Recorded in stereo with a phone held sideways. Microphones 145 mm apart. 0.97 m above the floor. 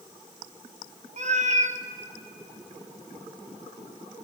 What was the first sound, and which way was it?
A cat meowing, 55° right (ahead or behind).